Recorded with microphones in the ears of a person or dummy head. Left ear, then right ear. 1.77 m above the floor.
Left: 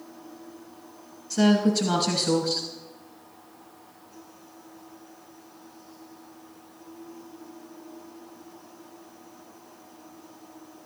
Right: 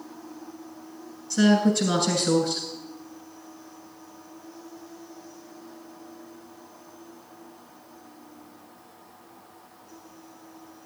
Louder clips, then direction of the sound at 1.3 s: Right 1 dB; 5° left (ahead or behind).